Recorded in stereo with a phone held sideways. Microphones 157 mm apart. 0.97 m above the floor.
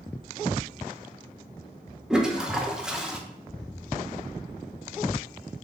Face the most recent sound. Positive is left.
turn(degrees=-5)  # may be behind; listen again after turning